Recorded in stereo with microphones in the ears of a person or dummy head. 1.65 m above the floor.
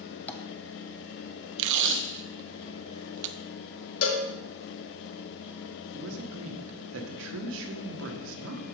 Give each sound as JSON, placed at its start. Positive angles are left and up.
{"t": 0.3, "sound": "tapping", "side_deg": 10, "distance_m": 0.8}
{"t": 1.6, "sound": "tape being pulled", "side_deg": -70, "distance_m": 0.7}
{"t": 4.0, "sound": "a cowbell", "side_deg": 75, "distance_m": 1.7}
{"t": 5.9, "sound": "a man speaking", "side_deg": -75, "distance_m": 1.5}